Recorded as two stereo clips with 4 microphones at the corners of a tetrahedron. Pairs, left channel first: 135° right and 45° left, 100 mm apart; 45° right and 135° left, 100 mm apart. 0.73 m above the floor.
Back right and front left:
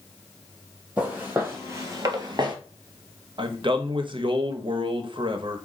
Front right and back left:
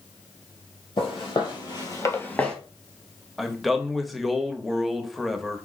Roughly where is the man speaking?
Ahead left.